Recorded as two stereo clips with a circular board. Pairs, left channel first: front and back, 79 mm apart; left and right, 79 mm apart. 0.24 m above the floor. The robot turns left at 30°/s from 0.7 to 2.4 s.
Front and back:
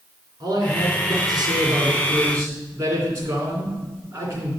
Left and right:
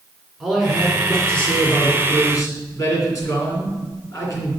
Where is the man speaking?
175° right, 3 m; by 4.5 s 135° left, 3 m.